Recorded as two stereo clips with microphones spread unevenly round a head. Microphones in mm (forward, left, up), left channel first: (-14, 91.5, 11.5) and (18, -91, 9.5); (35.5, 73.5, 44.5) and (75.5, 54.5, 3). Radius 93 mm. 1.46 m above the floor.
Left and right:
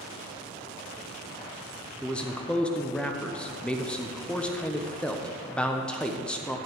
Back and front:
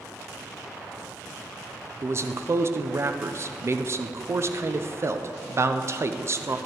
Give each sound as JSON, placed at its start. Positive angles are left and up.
{"t": 2.0, "sound": "a man speaking", "azimuth_deg": 15, "distance_m": 0.6}